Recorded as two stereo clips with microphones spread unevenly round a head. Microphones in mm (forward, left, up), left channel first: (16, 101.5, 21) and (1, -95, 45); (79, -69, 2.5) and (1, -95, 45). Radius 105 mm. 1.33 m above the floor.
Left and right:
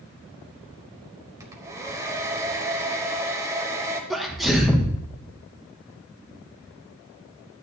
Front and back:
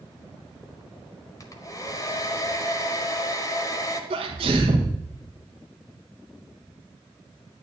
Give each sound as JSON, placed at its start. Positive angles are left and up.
{"t": 1.4, "sound": "a hair dryer", "azimuth_deg": -50, "distance_m": 1.2}
{"t": 4.1, "sound": "a sneeze", "azimuth_deg": 175, "distance_m": 1.2}